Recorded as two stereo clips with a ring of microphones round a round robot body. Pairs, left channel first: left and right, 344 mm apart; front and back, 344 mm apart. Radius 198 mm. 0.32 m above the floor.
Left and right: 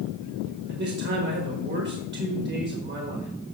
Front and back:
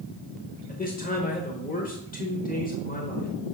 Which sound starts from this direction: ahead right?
A man speaking, at 0.7 s.